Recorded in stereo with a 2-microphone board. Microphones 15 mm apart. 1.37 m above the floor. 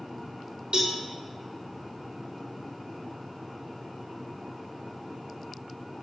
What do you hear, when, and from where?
0.7 s a cowbell: 85° right, 0.8 m